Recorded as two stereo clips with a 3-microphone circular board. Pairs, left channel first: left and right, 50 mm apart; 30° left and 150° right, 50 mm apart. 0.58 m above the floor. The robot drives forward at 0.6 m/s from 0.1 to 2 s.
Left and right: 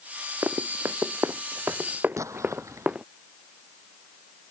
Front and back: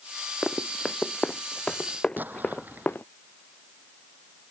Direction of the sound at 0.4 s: 55° right.